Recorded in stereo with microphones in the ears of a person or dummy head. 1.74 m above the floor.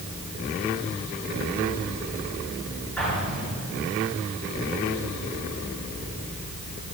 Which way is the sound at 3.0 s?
5° left (ahead or behind).